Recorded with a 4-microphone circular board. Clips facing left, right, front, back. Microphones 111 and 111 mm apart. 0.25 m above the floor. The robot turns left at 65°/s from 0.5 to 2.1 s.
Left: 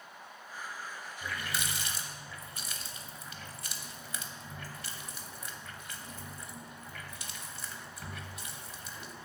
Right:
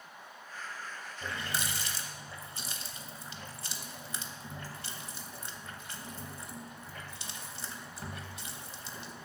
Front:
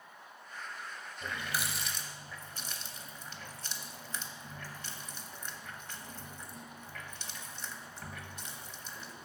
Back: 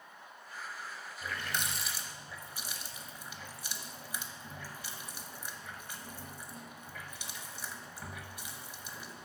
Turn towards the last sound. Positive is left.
turn(degrees=-110)